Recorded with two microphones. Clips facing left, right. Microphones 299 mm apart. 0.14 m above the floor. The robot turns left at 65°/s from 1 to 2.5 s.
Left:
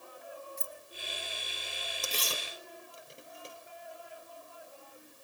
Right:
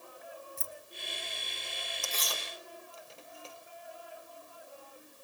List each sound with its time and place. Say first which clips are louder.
0.6 s keys jangling: left 1 dB; 40° right (ahead or behind), 1.6 m
2.0 s tearing paper: left 3 dB; 45° left (ahead or behind), 2.5 m; by 3.5 s 20° left (ahead or behind), 2.5 m